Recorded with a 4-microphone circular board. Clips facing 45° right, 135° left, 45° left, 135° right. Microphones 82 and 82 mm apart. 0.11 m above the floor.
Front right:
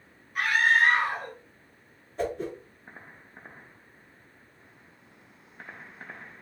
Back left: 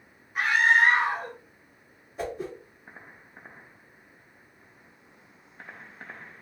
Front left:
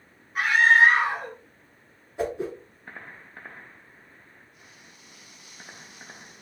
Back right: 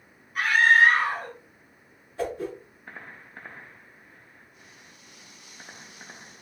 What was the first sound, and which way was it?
A scream, 90° left.